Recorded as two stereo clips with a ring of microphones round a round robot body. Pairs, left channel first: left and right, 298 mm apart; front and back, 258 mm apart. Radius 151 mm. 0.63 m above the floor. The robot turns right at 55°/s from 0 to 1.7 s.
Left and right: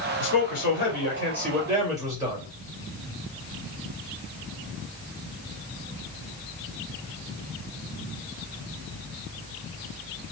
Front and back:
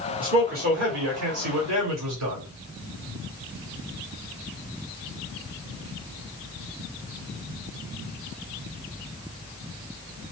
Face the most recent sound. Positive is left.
turn(degrees=-170)